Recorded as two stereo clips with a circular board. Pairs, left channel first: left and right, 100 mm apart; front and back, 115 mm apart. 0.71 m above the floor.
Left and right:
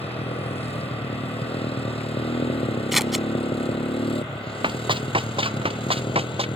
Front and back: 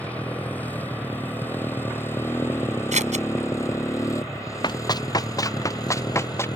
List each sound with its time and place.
0.0 s a motorcycle: 75° left; by 6.6 s 55° left
2.9 s scissors: straight behind
4.6 s running footsteps: 55° right; by 6.5 s 70° right